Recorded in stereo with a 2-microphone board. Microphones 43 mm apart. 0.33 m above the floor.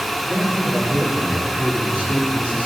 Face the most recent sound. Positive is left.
turn(degrees=35)  # may be behind; listen again after turning